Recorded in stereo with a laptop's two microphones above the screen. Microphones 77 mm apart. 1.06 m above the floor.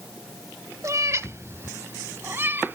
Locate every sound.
0.8 s a cat meowing: 45° right (ahead or behind); by 2.8 s 25° right (ahead or behind)